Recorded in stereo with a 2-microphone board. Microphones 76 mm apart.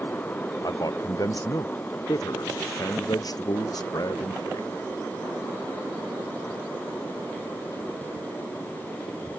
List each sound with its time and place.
0.6 s a man speaking: 55° left (ahead or behind)